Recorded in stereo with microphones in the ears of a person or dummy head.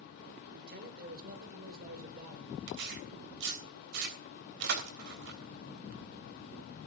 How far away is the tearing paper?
About 3 m.